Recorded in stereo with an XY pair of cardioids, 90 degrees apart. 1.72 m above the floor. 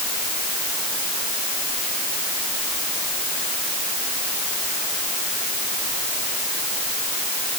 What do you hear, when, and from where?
Only background noise.